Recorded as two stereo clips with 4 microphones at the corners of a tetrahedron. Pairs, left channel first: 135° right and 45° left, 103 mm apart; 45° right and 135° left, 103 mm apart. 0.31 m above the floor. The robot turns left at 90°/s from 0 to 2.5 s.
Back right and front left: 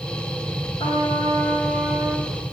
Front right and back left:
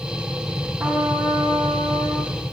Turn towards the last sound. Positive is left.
turn(degrees=65)